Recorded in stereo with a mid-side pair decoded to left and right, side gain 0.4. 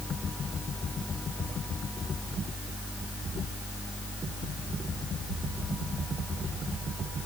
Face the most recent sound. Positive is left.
No sound to turn to.